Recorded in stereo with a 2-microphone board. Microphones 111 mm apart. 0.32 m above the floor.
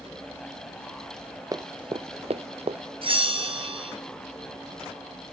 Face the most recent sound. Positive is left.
turn(degrees=-55)  # may be behind; listen again after turning